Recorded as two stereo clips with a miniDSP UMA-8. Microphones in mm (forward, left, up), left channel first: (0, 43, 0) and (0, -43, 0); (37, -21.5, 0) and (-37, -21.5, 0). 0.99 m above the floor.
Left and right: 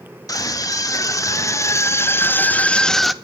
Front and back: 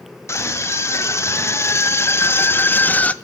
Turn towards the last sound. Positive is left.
turn(degrees=-10)